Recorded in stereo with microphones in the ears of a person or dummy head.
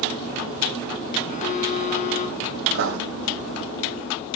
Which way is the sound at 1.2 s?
40° left (ahead or behind).